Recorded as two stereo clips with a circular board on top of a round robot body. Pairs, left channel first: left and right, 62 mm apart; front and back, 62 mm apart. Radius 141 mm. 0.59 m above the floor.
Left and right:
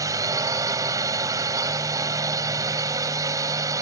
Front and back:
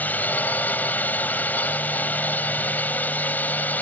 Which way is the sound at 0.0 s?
60° right.